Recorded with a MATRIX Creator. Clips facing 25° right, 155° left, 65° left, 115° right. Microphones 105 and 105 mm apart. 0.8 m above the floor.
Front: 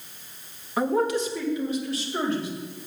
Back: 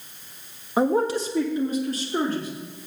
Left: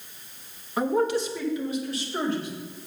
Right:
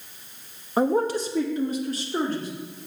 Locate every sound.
0.8 s a man speaking: 155° right, 1.0 m; by 2.5 s 160° right, 3 m